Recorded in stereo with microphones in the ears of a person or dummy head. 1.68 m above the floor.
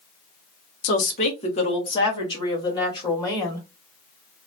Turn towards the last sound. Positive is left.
turn(degrees=20)  # may be behind; listen again after turning